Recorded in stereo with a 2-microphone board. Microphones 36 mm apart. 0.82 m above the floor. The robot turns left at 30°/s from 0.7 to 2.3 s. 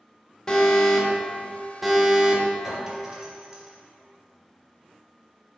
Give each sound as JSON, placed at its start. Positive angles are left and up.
{"t": 0.5, "sound": "an alarm", "azimuth_deg": 20, "distance_m": 1.2}
{"t": 2.6, "sound": "a clink", "side_deg": -20, "distance_m": 1.8}